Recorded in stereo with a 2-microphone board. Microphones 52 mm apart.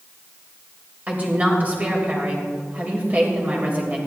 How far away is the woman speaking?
About 3 m.